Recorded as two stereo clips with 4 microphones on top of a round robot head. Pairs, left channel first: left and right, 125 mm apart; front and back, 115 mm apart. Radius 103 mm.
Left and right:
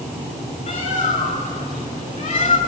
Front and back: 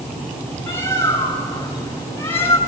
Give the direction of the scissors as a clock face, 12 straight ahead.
I don't hear scissors.